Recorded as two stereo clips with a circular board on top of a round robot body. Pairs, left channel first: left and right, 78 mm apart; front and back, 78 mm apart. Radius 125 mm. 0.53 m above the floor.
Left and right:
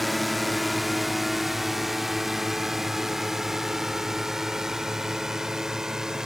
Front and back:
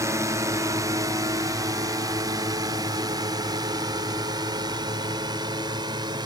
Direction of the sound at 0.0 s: Straight behind.